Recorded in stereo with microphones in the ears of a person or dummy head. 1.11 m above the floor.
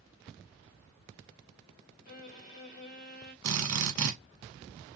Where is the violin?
50° left (ahead or behind), 1.9 m.